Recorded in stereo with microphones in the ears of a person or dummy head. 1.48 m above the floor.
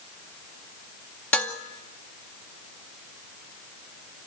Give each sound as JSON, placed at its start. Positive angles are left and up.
{"t": 1.3, "sound": "dishes clattering", "side_deg": 10, "distance_m": 1.9}